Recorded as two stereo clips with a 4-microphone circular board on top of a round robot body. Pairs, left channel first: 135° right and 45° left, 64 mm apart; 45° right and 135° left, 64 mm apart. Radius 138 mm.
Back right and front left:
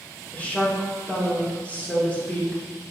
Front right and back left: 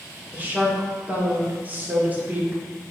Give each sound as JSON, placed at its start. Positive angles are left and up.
{"t": 0.3, "sound": "a woman speaking", "azimuth_deg": 175, "distance_m": 1.5}